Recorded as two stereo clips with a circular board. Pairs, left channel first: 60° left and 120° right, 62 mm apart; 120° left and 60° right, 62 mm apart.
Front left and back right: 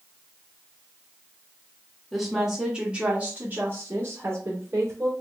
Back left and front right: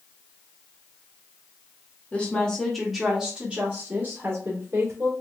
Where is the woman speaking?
150° left, 1.1 m; by 5.1 s 95° right, 1.7 m.